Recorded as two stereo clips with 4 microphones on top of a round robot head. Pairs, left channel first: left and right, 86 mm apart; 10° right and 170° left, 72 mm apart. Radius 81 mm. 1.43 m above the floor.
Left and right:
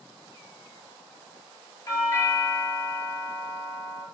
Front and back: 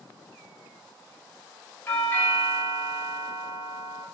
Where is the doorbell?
45° left, 1.3 m.